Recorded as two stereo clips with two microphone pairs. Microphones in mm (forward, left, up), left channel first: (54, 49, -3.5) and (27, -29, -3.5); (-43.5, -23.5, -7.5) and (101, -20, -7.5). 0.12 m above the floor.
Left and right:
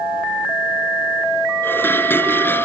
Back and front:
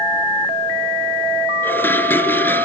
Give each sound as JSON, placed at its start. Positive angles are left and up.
{"t": 1.6, "sound": "dishes clattering", "azimuth_deg": 110, "distance_m": 1.2}